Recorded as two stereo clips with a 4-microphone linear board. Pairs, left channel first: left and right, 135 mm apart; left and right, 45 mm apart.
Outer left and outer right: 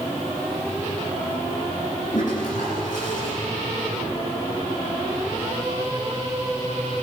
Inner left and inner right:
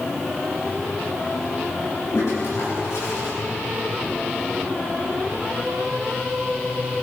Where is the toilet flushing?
75° left (ahead or behind), 7.5 m.